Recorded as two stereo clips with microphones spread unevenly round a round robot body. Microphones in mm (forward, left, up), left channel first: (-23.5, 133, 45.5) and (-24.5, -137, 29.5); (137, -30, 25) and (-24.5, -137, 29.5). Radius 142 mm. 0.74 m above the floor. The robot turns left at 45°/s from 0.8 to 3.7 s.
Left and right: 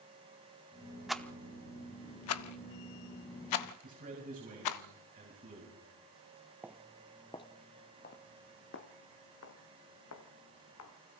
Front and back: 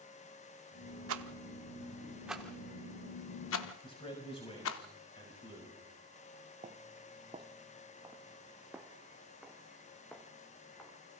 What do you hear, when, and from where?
1.1 s a rattle: straight behind, 0.8 m; by 4.8 s 65° left, 0.8 m
3.8 s a man speaking: 30° right, 6 m
6.6 s footsteps: 175° right, 0.8 m; by 11.0 s 120° left, 2.5 m